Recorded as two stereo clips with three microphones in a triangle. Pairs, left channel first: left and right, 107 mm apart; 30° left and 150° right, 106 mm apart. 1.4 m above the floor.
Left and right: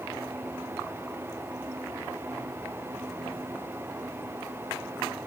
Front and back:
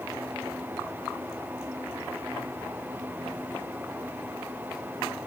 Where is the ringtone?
I don't hear a ringtone.